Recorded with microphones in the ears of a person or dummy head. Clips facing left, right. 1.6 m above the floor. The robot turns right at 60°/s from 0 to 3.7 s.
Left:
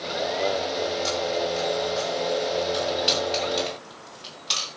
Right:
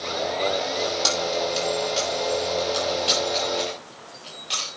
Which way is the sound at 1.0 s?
75° right (ahead or behind).